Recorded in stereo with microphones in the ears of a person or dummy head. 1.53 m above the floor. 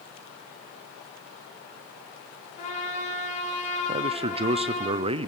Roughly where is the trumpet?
Left.